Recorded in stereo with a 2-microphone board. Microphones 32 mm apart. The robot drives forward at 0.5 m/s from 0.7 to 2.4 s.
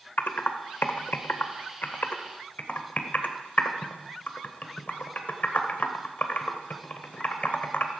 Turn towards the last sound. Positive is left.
turn(degrees=50)  # may be behind; listen again after turning